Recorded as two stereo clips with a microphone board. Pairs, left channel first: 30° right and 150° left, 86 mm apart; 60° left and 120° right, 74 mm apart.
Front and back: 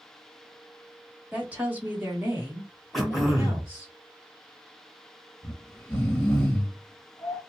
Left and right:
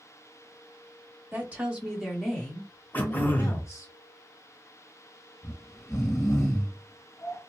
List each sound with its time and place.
1.3 s a woman speaking: 150° right, 1.4 m; by 3.9 s 90° left, 1.9 m
2.9 s throat clearing: 60° left, 0.9 m
5.4 s snoring: 40° left, 1.3 m